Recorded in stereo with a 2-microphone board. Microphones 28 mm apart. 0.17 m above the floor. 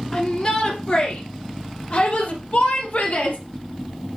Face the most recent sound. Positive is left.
turn(degrees=60)  # may be behind; listen again after turning